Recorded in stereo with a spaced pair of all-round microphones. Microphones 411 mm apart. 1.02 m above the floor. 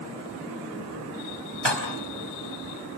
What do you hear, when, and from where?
1.6 s dishes clattering: 85° right, 4.5 m